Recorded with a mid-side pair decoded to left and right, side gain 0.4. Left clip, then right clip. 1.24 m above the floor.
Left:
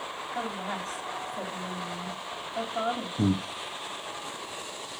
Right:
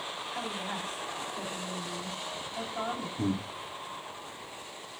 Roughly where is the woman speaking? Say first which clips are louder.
Left 4 dB; ahead left.